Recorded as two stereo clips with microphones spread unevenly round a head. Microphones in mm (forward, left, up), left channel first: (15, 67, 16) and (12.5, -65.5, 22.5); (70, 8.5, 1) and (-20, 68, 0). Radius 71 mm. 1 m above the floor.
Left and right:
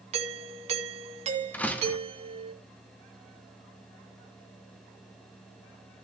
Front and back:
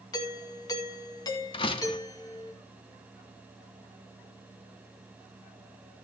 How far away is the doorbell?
About 1.6 m.